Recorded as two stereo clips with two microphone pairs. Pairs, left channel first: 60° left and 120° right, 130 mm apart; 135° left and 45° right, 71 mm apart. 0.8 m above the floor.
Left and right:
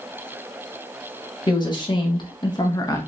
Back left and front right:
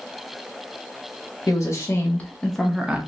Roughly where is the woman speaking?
Left.